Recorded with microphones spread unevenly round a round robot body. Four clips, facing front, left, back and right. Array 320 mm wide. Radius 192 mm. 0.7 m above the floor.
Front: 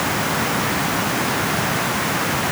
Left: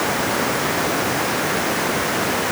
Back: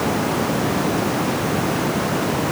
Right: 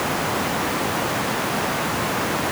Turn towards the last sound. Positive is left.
No sound to turn to.